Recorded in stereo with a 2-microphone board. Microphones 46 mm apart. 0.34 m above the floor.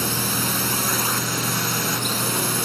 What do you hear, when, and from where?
0.0 s a drone: centre (ahead or behind)